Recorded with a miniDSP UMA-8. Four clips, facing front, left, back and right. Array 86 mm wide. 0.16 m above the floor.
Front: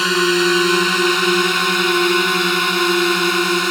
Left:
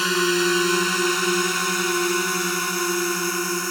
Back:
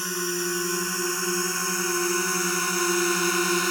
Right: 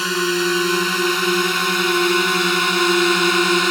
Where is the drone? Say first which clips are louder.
Right 1 dB, front 13 dB; straight ahead; by 3.7 s 55° right.